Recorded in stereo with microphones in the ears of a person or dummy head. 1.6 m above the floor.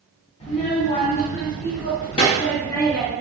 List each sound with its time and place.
0.4 s a child speaking: 30° left (ahead or behind), 1.3 m; by 3.1 s 10° left (ahead or behind), 1.3 m